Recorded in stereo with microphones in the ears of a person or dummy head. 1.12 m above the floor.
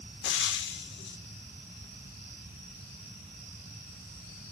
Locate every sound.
0.2 s frying: 55° left (ahead or behind), 0.7 m